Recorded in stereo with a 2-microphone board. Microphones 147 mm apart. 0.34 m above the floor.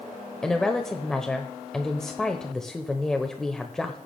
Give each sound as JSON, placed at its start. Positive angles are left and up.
{"t": 0.4, "sound": "a woman speaking", "side_deg": 5, "distance_m": 1.0}